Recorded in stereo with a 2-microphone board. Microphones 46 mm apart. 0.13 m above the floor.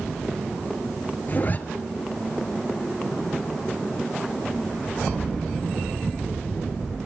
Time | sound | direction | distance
1.3 | a zipper | 40° left (ahead or behind) | 1.6 m